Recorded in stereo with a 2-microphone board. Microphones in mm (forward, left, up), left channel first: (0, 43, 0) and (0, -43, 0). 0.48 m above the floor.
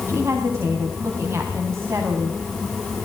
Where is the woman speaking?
30° right (ahead or behind), 4 m.